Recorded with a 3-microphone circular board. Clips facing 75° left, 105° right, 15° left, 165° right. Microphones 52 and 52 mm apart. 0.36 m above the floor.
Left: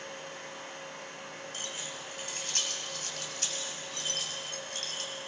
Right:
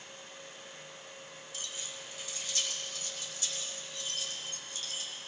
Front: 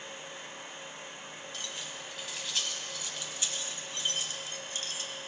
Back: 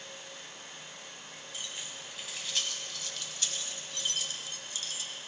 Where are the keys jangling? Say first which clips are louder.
Left 1 dB, even; 120° left, 1.9 m; by 5.1 s 55° left, 1.7 m.